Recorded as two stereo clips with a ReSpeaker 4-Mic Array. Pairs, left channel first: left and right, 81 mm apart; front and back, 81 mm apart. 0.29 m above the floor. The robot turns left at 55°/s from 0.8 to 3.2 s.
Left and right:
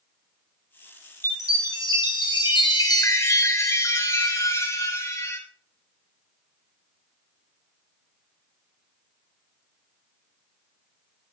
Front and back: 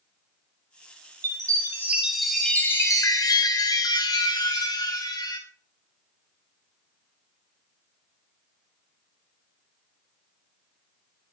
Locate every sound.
1.2 s a chime: 145° left, 2.0 m; by 5.4 s 40° left, 2.0 m